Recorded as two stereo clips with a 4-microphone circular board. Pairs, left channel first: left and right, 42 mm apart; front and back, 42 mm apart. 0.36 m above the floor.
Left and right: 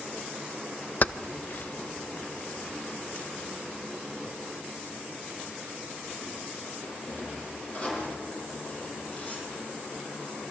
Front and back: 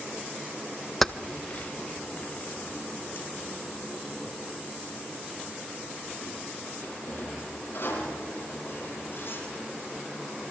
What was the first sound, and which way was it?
Keys jangling, 85° left.